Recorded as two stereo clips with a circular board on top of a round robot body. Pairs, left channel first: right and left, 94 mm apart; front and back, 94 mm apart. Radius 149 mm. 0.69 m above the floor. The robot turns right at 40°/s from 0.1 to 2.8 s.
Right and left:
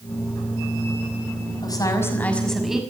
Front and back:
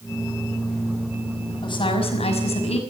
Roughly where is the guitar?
I don't hear a guitar.